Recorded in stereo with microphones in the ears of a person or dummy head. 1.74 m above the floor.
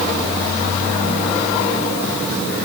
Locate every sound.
Only background noise.